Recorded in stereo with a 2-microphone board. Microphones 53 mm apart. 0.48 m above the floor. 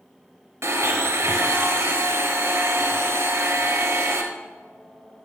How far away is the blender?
About 0.8 m.